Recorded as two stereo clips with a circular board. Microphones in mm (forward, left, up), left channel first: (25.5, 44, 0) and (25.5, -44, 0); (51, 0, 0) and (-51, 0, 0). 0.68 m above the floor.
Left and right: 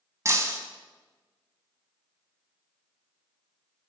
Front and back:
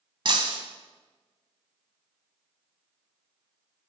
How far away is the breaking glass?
About 1.2 m.